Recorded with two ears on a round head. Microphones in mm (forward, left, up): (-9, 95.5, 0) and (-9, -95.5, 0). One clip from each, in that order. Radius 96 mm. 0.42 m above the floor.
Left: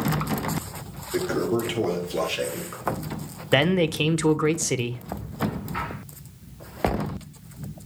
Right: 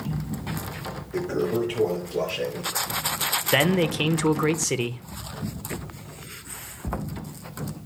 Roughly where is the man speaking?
Centre.